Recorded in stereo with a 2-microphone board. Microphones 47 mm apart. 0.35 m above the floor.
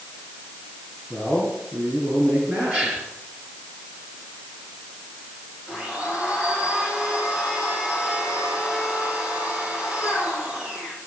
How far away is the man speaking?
About 6 m.